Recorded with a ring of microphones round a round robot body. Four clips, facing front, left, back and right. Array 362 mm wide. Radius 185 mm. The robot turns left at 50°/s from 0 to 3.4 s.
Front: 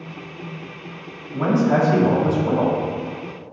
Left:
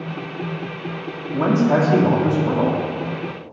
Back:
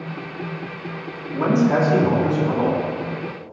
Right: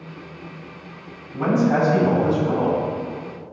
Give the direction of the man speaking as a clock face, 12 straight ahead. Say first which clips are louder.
Left 2 dB, even; 9 o'clock.